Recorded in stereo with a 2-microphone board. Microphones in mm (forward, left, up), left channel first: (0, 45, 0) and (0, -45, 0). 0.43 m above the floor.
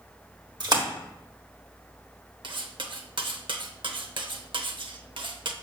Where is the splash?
50° right (ahead or behind), 1.4 m.